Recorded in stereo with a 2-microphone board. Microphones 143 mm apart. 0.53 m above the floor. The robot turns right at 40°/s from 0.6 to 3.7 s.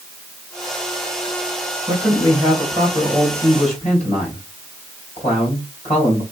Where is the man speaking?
25° right, 3 m; by 6.2 s 50° left, 3 m.